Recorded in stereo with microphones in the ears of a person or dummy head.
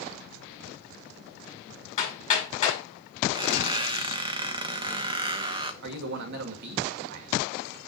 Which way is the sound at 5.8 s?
65° right (ahead or behind).